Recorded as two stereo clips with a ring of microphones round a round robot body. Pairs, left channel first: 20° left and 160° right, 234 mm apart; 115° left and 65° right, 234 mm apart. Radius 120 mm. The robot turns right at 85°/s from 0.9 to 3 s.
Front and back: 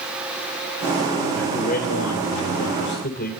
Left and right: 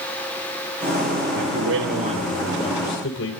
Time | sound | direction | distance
1.4 | a man speaking | 65° right | 4 m